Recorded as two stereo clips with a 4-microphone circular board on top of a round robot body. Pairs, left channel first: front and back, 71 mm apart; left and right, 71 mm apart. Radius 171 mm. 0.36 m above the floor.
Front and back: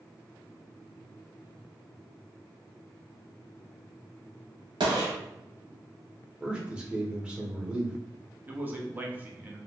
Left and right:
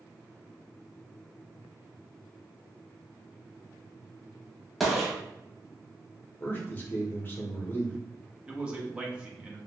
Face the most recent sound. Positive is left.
turn(degrees=-150)